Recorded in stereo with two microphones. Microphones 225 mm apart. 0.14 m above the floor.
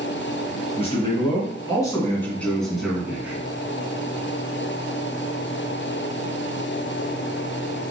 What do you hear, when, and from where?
0.8 s a man speaking: 30° left (ahead or behind), 1.8 m; by 3.5 s 10° right (ahead or behind), 1.6 m